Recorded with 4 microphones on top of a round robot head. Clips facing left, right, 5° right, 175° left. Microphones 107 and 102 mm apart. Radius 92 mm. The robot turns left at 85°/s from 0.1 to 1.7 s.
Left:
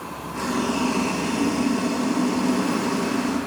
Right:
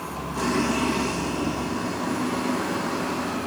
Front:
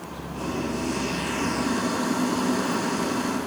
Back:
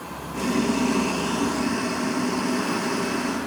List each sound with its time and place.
0.3 s boiling: 170° right, 1.5 m; by 3.5 s 75° left, 1.5 m